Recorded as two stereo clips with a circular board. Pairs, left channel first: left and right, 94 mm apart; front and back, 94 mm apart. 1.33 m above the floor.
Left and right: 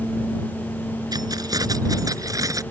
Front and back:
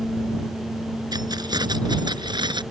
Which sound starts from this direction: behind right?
Keys jangling, at 1.1 s.